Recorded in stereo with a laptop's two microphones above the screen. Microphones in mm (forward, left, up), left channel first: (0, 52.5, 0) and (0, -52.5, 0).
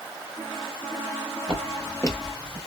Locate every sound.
1.5 s footsteps: 10° left (ahead or behind), 1.4 m; by 2.6 s 45° left (ahead or behind), 1.4 m